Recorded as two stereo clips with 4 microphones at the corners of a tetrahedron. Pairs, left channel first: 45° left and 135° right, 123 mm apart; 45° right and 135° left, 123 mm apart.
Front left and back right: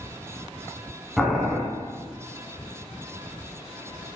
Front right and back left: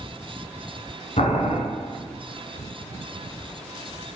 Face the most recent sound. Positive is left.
turn(degrees=-45)